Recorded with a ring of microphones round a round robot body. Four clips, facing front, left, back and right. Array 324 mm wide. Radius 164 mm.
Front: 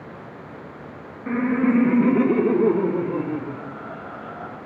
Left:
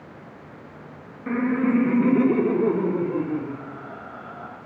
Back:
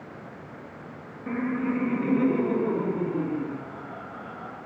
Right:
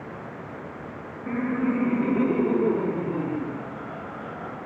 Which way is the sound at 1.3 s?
45° left.